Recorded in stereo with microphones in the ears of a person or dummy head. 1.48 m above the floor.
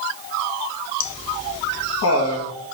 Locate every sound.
1.0 s laughter: 80° left, 1.8 m